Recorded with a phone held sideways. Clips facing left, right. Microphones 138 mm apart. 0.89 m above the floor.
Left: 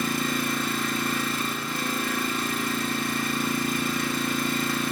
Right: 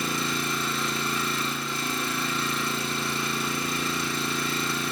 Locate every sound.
0.0 s an engine running: 55° left (ahead or behind), 3.5 m